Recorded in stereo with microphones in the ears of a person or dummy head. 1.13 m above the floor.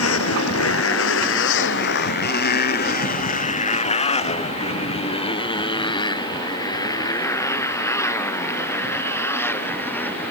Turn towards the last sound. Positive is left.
turn(degrees=10)  # may be behind; listen again after turning